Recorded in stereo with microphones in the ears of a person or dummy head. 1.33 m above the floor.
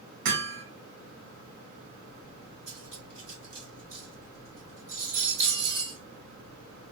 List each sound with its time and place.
0.2 s hammering: 60° right (ahead or behind), 0.8 m
2.7 s cutlery clinking: 65° right (ahead or behind), 1.5 m